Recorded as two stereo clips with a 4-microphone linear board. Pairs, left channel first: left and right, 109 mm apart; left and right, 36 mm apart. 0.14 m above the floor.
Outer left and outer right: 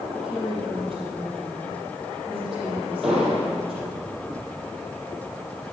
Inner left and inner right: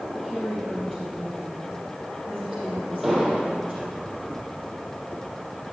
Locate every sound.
0.1 s a woman speaking: 5° right (ahead or behind), 5 m
3.0 s an explosion: 5° right (ahead or behind), 4.5 m